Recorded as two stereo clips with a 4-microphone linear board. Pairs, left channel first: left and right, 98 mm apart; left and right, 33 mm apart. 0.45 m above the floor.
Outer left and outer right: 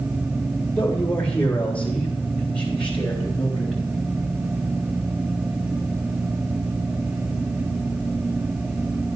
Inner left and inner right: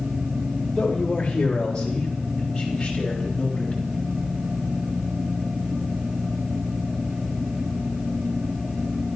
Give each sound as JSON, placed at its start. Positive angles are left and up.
{"t": 0.8, "sound": "a man speaking", "side_deg": 20, "distance_m": 2.0}